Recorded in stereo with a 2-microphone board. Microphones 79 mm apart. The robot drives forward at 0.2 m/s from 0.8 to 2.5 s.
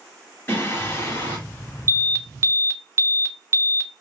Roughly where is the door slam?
I don't hear a door slam.